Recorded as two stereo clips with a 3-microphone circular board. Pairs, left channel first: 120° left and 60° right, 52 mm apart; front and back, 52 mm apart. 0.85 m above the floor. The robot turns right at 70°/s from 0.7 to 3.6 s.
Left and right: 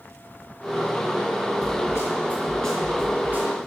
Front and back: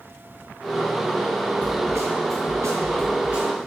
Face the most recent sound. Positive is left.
turn(degrees=-95)